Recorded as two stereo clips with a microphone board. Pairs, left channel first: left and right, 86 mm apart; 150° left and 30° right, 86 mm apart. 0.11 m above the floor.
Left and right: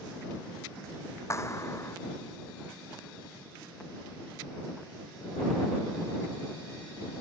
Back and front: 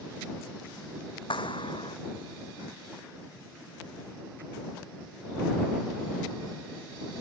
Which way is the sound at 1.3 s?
145° left.